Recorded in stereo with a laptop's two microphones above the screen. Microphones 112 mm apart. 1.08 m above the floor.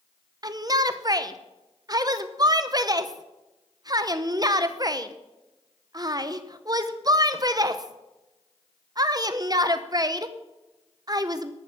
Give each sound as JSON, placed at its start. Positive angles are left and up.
{"t": 0.4, "sound": "a shout", "side_deg": -35, "distance_m": 0.8}